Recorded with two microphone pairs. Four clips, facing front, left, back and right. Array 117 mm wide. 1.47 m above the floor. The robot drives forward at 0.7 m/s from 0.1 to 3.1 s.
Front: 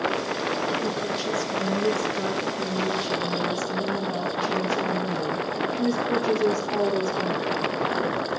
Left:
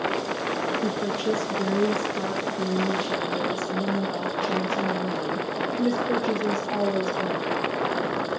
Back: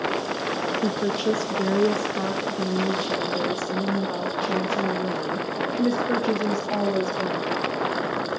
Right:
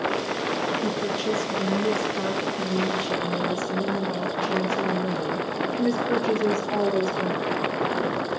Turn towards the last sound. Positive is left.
turn(degrees=180)